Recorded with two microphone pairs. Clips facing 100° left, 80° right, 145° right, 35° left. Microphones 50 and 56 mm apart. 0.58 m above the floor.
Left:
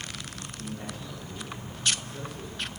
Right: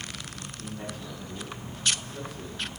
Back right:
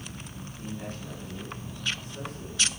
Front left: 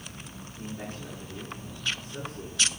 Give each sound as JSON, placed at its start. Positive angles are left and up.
{"t": 0.6, "sound": "a man speaking", "azimuth_deg": -35, "distance_m": 6.5}